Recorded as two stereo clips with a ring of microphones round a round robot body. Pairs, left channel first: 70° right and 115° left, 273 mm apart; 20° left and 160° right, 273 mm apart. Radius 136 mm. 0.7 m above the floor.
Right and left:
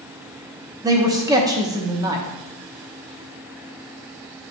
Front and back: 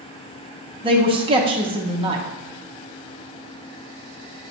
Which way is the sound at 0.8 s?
170° left.